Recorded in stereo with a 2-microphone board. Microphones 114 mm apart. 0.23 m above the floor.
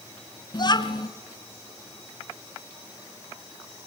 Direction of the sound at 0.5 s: 40° left (ahead or behind).